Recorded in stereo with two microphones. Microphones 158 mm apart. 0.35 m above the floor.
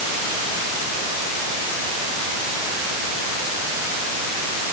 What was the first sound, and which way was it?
Only background noise.